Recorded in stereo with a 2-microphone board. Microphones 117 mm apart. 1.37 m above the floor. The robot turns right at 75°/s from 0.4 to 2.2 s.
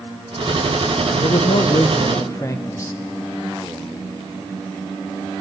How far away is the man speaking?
About 1.0 m.